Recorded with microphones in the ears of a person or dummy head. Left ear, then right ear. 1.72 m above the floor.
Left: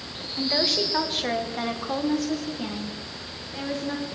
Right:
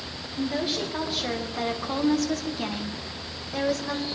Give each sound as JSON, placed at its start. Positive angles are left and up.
{"t": 0.4, "sound": "a woman speaking", "side_deg": 35, "distance_m": 2.0}